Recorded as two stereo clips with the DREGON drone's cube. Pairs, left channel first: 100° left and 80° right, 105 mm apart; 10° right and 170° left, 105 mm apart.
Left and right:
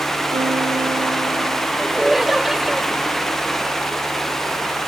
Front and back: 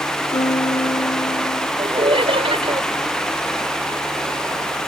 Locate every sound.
0.3 s a piano: 40° right
1.8 s laughter: 165° right